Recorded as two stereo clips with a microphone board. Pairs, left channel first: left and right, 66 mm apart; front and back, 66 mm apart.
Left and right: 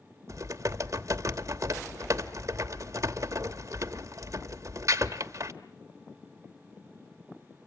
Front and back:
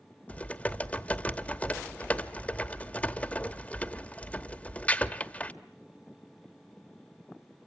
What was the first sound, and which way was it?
Typing on a keyboard, 65° right.